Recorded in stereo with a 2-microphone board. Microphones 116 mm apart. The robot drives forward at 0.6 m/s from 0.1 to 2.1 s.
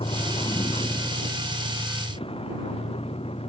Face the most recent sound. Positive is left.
turn(degrees=55)  # may be behind; listen again after turning